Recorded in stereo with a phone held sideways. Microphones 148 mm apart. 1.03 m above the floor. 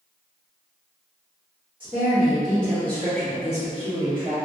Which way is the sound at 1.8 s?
10° right (ahead or behind).